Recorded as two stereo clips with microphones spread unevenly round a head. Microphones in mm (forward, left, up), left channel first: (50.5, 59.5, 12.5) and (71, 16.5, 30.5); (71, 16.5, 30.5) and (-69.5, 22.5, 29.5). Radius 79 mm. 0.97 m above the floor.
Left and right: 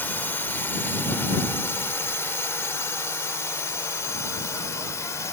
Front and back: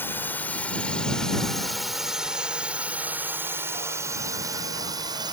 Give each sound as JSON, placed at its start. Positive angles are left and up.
{"t": 0.0, "sound": "a drone", "azimuth_deg": 75}